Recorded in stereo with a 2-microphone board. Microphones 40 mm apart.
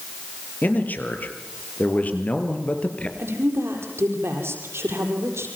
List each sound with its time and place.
0.6 s a man speaking: 45° left (ahead or behind), 4.5 m; by 3.1 s 30° left (ahead or behind), 3.5 m
3.2 s a woman speaking: 75° right (ahead or behind), 6.5 m